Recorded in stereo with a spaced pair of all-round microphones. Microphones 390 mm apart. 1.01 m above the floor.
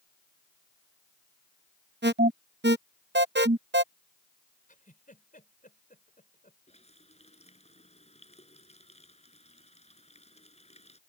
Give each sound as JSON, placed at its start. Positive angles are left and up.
{"t": 2.0, "sound": "an alarm", "side_deg": -30}
{"t": 4.7, "sound": "a giggle", "side_deg": 20}
{"t": 6.7, "sound": "a running tap", "side_deg": 15}